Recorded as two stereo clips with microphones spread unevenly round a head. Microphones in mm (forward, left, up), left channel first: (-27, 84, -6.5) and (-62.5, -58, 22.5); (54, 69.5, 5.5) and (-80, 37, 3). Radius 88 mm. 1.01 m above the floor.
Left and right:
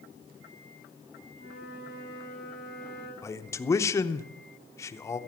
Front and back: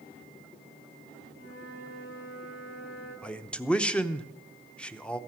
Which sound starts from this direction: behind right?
A flute, at 1.4 s.